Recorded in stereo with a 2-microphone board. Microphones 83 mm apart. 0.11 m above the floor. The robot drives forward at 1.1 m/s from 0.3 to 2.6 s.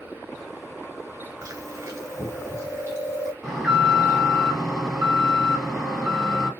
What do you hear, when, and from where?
1.4 s chewing: 40° right (ahead or behind), 2 m; by 3.3 s 35° right (ahead or behind), 2.5 m
3.4 s an alarm: 5° right (ahead or behind), 3.5 m